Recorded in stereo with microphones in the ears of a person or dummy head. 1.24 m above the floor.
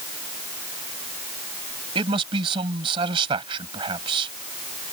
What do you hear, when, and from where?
1.9 s a man speaking: 30° right (ahead or behind)